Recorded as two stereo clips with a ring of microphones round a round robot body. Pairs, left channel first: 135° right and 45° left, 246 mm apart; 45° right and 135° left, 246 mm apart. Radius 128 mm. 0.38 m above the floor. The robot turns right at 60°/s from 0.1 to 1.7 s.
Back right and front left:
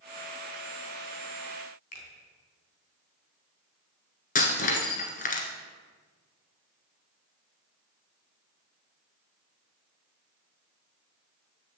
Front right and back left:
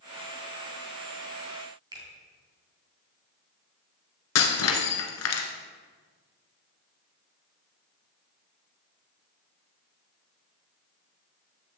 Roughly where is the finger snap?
Behind right.